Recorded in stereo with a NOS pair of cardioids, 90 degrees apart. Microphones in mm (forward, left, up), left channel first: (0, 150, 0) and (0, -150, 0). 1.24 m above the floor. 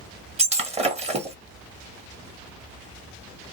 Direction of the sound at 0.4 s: 20° right.